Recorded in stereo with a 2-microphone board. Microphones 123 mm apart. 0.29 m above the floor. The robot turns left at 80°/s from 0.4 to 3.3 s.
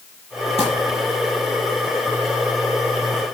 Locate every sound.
0.6 s crumpling: 55° left (ahead or behind), 9.5 m; by 0.7 s 45° left (ahead or behind), 9.5 m